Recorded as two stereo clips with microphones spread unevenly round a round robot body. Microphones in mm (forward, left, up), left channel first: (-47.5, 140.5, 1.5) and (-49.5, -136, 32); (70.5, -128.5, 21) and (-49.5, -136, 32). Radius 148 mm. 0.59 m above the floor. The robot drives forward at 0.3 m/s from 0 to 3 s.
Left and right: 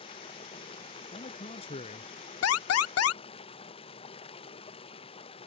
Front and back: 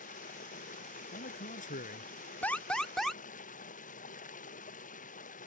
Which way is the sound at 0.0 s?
15° left.